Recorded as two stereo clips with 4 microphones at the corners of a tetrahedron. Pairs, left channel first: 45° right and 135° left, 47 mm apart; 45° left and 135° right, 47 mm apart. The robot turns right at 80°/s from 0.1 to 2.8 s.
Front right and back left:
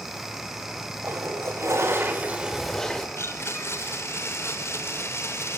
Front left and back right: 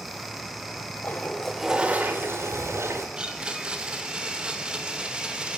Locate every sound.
1.0 s a toilet flushing: 95° left, 5 m; by 3.1 s 125° right, 5 m
3.2 s a blender: 65° right, 3.5 m